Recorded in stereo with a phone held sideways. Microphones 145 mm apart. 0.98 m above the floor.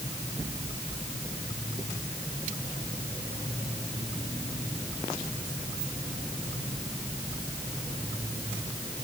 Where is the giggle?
No giggle in this recording.